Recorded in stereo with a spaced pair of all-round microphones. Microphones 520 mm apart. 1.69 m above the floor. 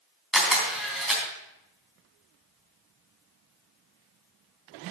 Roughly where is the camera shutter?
Centre.